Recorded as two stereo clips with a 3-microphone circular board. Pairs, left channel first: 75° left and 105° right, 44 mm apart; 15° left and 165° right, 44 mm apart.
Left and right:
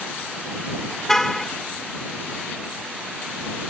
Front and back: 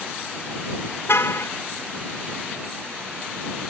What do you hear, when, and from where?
1.1 s a car horn: 5° right